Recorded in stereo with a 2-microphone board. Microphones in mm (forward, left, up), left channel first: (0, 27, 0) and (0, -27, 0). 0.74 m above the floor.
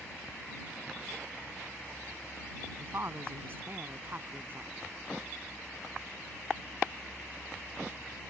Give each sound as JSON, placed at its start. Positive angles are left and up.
{"t": 2.8, "sound": "a woman speaking", "side_deg": -45}